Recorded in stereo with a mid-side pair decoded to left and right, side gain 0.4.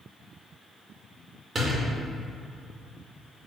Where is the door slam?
40° right, 2 m.